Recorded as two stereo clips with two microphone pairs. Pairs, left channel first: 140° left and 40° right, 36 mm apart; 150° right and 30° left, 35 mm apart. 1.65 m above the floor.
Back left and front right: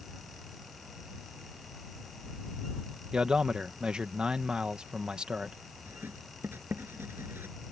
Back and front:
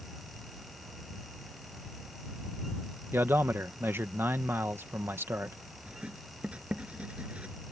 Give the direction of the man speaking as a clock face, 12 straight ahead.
11 o'clock.